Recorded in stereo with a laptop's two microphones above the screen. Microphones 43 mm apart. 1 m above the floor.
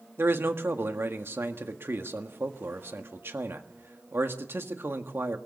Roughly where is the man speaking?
Right.